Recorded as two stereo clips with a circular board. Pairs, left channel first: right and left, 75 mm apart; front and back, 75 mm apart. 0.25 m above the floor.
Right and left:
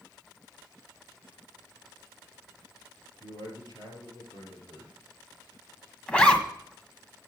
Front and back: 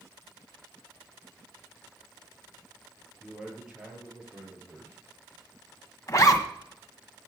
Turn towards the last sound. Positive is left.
turn(degrees=-25)